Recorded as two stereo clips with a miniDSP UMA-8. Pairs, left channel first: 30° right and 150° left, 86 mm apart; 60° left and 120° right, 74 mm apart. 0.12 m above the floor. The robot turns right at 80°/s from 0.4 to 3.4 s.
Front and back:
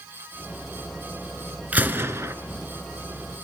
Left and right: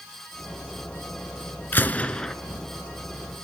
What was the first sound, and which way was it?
A gunshot, 95° left.